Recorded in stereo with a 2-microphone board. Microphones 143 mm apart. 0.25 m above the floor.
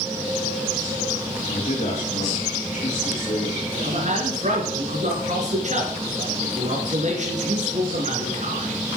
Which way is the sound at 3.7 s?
55° right (ahead or behind).